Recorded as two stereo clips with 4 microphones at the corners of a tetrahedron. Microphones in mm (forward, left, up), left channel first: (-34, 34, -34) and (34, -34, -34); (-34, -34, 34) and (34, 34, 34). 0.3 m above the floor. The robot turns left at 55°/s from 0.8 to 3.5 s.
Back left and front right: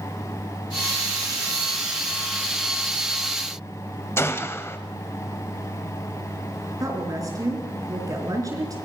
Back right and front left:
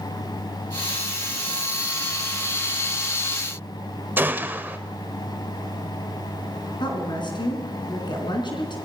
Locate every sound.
4.2 s a gunshot: 100° left, 1.0 m
6.8 s a woman speaking: 100° right, 4.5 m